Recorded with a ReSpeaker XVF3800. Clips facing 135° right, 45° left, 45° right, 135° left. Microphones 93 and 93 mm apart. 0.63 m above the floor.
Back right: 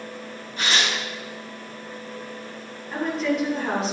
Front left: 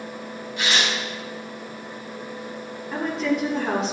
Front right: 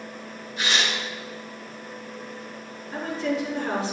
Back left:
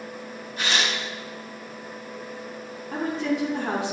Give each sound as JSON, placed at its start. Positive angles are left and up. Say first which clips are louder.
{"t": 0.6, "sound": "tearing paper", "louder": "even, even", "azimuth_deg": 175, "distance_m": 4.0}
{"t": 2.9, "sound": "a woman speaking", "louder": "even, back left 1 dB", "azimuth_deg": 135, "distance_m": 4.5}